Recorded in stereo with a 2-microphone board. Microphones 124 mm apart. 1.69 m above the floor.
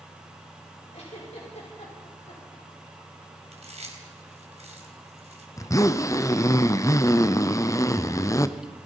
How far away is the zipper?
About 0.7 m.